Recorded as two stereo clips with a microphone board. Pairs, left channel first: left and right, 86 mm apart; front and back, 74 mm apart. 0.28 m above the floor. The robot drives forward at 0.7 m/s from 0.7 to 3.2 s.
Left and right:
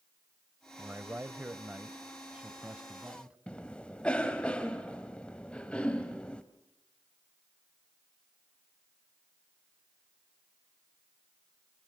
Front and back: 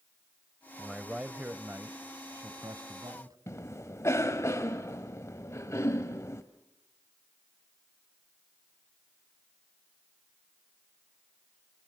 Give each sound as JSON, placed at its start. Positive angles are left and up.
{"t": 0.8, "sound": "a man speaking", "azimuth_deg": -100, "distance_m": 1.2}
{"t": 3.5, "sound": "a cough", "azimuth_deg": 15, "distance_m": 1.2}